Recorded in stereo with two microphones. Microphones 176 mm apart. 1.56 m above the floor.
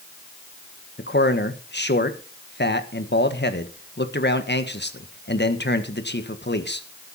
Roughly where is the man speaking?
Left.